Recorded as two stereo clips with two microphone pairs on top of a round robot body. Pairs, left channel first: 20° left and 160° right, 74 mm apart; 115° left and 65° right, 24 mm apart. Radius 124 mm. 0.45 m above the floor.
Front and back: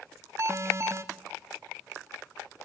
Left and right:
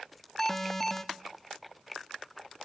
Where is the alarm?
175° right, 1.1 m.